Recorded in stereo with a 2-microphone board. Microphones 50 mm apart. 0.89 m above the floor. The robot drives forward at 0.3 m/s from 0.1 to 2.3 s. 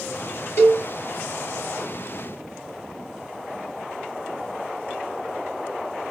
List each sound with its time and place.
0.6 s a cowbell: 55° left (ahead or behind), 1.9 m